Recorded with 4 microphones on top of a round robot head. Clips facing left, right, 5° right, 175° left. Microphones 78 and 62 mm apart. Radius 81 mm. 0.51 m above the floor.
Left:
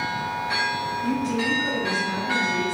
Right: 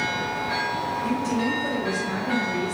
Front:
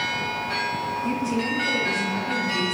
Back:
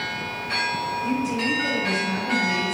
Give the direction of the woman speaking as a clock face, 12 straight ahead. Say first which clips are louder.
Left 1 dB, back 1 dB; 5 o'clock.